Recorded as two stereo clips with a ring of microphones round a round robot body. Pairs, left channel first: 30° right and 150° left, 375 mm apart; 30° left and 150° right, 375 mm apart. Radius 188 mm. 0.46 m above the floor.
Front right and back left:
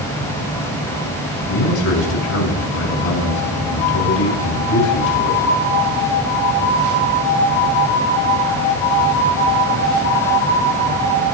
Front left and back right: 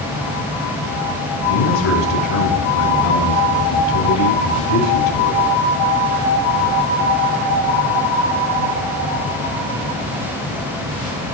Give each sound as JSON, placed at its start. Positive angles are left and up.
{"t": 1.5, "sound": "a man speaking", "azimuth_deg": 15, "distance_m": 4.5}